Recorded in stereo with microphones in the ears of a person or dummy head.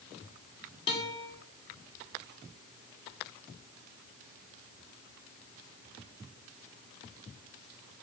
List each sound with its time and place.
0.9 s a guitar: 25° left (ahead or behind), 4.5 m